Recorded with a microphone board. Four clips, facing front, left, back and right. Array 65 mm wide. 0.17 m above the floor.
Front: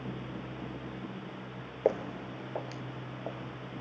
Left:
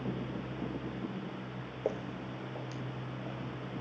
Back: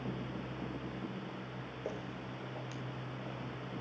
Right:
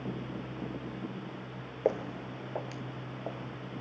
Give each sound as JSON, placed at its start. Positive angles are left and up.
{"t": 1.9, "sound": "footsteps", "azimuth_deg": -25, "distance_m": 0.5}